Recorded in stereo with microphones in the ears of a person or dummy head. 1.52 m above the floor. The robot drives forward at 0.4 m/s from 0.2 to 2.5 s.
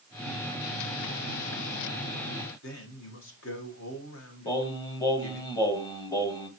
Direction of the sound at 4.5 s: 25° left (ahead or behind).